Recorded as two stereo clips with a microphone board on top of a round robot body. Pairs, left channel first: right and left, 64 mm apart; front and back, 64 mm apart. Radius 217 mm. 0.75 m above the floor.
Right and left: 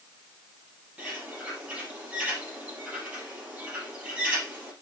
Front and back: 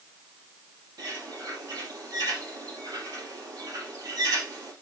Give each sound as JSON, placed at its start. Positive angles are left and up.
{"t": 1.0, "sound": "a bird", "azimuth_deg": 160, "distance_m": 4.0}